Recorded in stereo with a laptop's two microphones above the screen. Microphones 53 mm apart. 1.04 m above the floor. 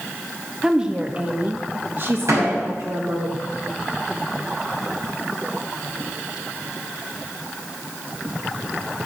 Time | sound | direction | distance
0.6 | a woman speaking | 15° right (ahead or behind) | 1.3 m
2.3 | a door slam | 85° right | 5.5 m